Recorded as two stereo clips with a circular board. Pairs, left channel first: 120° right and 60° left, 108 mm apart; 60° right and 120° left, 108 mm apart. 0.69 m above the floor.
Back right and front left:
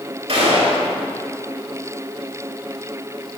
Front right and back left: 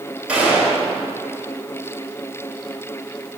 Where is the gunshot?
40° left, 3 m.